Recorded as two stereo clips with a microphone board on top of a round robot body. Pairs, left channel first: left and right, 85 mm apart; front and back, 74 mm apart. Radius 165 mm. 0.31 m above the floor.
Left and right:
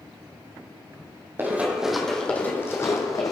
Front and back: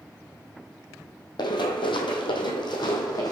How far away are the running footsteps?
About 1.0 m.